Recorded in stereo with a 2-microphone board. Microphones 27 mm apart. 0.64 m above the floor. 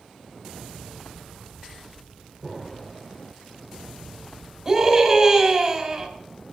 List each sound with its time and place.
2.4 s an explosion: 5° right (ahead or behind), 1.1 m
4.7 s a scream: 15° right (ahead or behind), 3.5 m